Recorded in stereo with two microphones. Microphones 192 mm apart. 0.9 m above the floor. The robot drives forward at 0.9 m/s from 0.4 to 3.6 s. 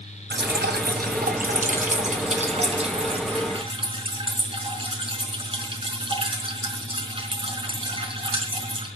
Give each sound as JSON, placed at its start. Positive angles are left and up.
{"t": 0.3, "sound": "dripping", "side_deg": -65, "distance_m": 2.0}